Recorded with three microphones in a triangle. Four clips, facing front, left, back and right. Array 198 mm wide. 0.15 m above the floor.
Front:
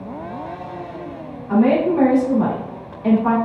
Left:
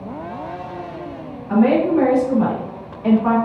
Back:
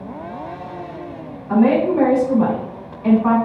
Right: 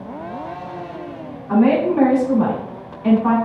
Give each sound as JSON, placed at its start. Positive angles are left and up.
{"t": 1.5, "sound": "a woman speaking", "azimuth_deg": -80, "distance_m": 1.7}